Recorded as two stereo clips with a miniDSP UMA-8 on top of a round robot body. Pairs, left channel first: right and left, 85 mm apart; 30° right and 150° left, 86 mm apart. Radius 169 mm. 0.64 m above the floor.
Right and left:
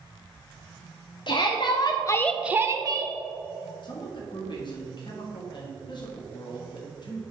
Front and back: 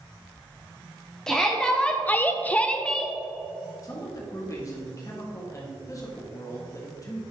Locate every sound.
1.3 s a shout: 110° right, 1.6 m; by 3.1 s 50° left, 1.4 m
3.8 s a man speaking: 75° right, 2 m